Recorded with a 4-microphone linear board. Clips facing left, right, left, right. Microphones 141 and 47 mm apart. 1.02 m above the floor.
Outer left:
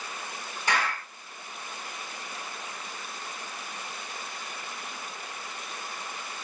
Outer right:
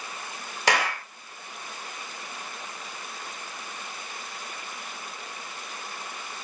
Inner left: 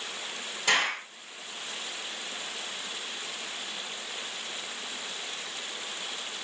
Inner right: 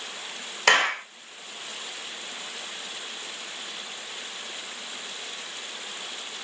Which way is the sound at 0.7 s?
80° right.